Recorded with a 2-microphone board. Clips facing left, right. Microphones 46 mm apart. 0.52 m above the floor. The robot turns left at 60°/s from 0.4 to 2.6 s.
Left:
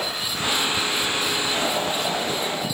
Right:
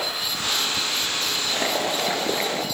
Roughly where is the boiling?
Ahead right.